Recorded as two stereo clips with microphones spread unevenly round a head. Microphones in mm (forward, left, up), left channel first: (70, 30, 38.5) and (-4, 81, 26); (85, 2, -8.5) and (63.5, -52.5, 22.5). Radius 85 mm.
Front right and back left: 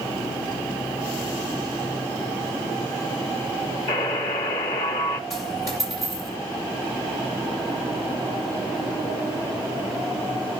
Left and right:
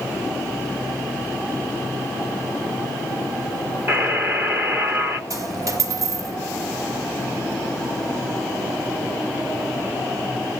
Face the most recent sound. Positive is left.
turn(degrees=-105)